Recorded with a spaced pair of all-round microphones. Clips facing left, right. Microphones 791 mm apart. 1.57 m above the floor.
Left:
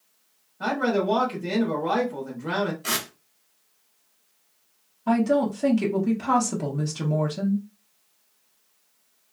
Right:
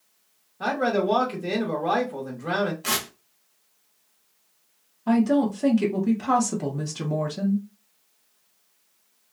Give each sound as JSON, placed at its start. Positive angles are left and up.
{"t": 0.6, "sound": "a man speaking", "side_deg": -15, "distance_m": 0.7}
{"t": 2.8, "sound": "tearing paper", "side_deg": -35, "distance_m": 0.6}
{"t": 5.1, "sound": "a woman speaking", "side_deg": 5, "distance_m": 0.6}